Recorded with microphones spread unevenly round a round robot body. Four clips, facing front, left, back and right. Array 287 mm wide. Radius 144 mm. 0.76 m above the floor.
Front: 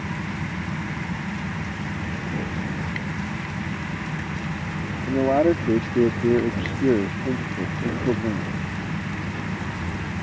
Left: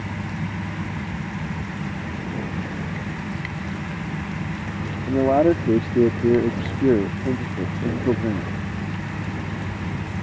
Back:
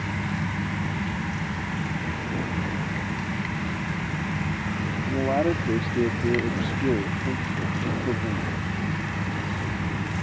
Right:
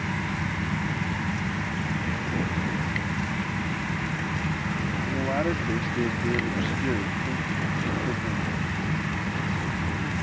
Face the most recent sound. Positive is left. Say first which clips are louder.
# left 12 dB, front 5 dB
turn(degrees=60)